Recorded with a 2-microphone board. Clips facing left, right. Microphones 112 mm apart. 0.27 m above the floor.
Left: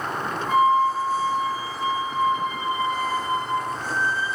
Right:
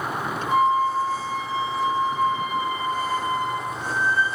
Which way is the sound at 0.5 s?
10° left (ahead or behind).